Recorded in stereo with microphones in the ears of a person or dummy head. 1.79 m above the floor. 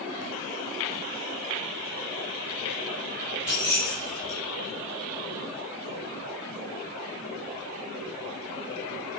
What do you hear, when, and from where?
3.5 s keys jangling: 20° left (ahead or behind), 4 m